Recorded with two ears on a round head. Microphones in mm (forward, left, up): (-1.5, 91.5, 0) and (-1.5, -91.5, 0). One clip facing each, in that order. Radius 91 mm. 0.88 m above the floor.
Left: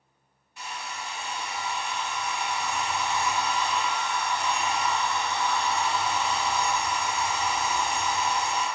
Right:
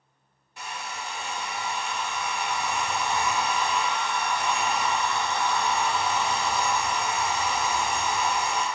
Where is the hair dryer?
45° right (ahead or behind), 0.7 m.